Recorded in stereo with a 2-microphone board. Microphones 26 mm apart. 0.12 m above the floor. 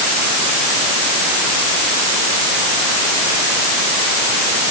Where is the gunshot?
No gunshot in this recording.